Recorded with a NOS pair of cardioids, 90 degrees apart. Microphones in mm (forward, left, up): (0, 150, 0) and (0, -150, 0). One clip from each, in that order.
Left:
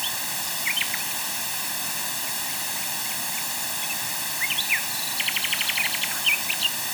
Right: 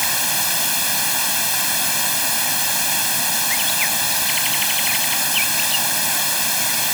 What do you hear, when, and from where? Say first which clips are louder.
0.0 s running water: right 8 dB; 65° right